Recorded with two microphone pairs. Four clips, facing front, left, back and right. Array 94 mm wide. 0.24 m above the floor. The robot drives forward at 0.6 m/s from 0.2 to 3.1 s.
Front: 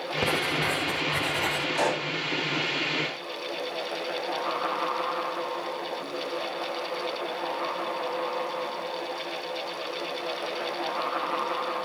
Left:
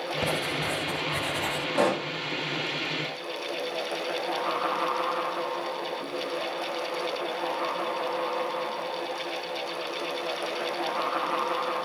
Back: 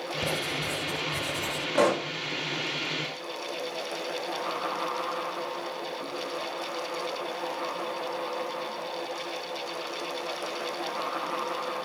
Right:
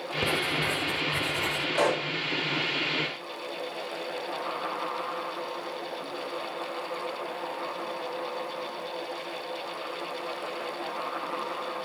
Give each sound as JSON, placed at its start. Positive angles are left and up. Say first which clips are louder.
{"t": 0.2, "sound": "writing", "louder": "right 2 dB, front 6 dB", "azimuth_deg": 10, "distance_m": 1.9}
{"t": 1.8, "sound": "a pop", "louder": "left 1 dB, back 5 dB", "azimuth_deg": 165, "distance_m": 4.0}